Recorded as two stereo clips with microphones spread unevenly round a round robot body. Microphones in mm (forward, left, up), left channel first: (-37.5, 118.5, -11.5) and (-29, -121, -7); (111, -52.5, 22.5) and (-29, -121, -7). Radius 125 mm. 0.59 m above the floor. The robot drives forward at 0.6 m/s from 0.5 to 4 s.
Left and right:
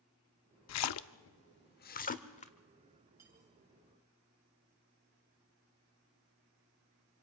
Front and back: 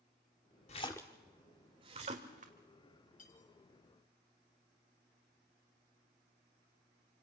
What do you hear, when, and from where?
0.7 s a splash: 90° left, 0.6 m; by 2.5 s 155° left, 1.2 m
3.2 s cutlery clinking: 5° right, 3 m; by 3.5 s 10° right, 2.5 m